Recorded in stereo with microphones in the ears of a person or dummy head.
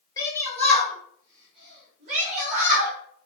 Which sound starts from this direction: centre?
A shout, at 0.2 s.